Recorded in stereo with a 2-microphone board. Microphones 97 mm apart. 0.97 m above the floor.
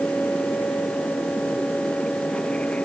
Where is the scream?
I don't hear a scream.